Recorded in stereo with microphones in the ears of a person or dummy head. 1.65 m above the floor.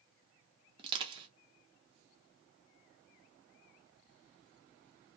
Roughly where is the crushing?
Right.